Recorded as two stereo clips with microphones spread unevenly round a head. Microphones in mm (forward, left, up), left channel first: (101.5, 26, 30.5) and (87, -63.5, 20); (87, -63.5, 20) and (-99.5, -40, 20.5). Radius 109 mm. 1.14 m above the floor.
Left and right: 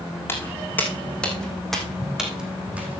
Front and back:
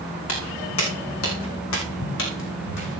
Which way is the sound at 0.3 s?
15° left.